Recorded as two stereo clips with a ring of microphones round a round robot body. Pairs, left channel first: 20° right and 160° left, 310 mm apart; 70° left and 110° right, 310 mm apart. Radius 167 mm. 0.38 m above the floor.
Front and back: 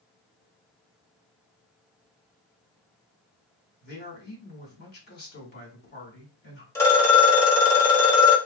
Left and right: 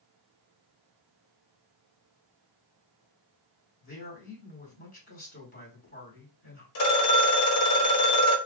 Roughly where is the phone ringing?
Ahead left.